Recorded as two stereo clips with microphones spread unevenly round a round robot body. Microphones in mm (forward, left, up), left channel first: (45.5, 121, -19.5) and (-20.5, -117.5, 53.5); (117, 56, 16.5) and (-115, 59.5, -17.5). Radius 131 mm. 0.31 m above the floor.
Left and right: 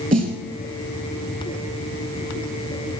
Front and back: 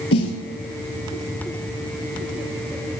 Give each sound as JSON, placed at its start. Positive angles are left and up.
{"t": 0.1, "sound": "a snare drum", "azimuth_deg": -45, "distance_m": 2.0}